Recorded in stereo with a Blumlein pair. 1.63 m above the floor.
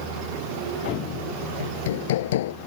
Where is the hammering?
60° left.